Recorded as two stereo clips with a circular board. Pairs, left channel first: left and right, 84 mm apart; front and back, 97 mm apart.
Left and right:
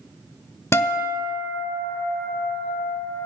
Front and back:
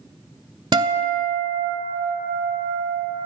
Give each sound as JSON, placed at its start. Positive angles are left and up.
{"t": 0.7, "sound": "a guitar", "azimuth_deg": 145, "distance_m": 0.6}